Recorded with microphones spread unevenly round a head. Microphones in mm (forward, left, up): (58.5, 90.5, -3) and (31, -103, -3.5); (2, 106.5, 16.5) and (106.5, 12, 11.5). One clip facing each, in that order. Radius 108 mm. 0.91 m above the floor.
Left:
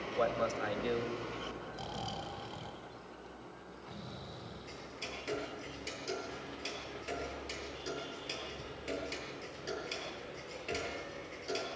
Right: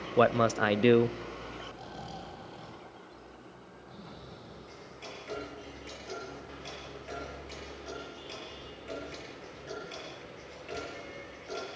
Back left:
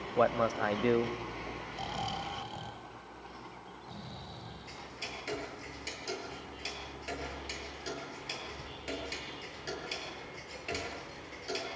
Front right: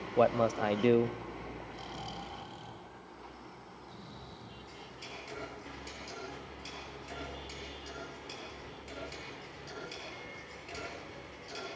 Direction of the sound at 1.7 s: 120° left.